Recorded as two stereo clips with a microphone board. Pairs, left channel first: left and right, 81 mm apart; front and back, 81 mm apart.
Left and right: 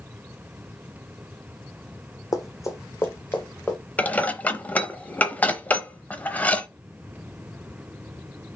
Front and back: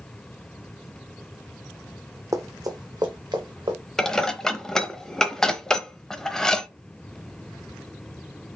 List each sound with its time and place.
2.3 s running footsteps: 130° left, 0.9 m; by 3.8 s 160° left, 1.5 m
4.0 s dishes clattering: 70° left, 0.7 m